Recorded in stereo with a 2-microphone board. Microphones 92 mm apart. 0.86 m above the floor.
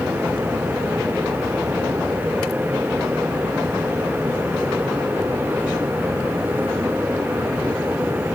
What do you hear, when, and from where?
Only background noise.